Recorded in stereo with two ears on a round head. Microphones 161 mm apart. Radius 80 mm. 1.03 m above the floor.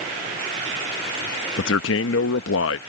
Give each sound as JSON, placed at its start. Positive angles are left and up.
{"t": 1.6, "sound": "a man speaking", "side_deg": 80}